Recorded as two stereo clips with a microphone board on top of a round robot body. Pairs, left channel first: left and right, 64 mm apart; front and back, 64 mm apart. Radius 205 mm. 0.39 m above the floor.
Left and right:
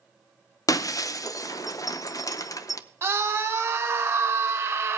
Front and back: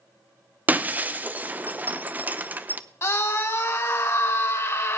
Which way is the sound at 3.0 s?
40° right.